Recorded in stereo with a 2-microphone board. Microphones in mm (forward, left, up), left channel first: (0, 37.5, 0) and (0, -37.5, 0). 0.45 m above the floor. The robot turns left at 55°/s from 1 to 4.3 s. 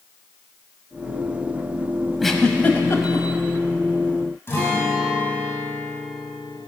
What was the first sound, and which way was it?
A giggle, centre (ahead or behind).